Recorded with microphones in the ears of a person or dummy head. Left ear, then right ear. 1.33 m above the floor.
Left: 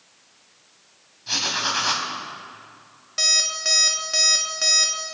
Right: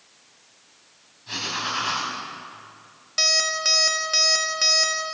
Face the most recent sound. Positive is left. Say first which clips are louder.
# even
turn(degrees=-10)  # may be behind; listen again after turning